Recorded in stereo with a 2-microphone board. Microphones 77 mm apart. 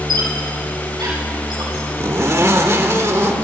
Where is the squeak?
75° right (ahead or behind), 6.5 m.